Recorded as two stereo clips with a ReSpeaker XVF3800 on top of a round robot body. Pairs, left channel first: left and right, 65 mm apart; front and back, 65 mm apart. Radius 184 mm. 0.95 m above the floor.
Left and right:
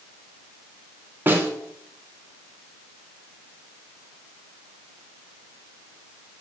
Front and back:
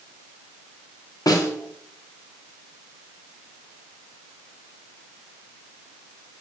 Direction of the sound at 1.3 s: 30° right.